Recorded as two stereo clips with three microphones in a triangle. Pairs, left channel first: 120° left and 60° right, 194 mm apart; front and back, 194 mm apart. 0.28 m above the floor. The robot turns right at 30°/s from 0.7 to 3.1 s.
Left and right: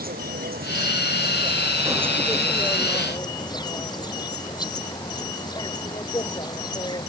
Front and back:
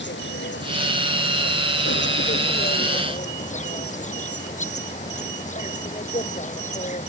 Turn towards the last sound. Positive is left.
turn(degrees=50)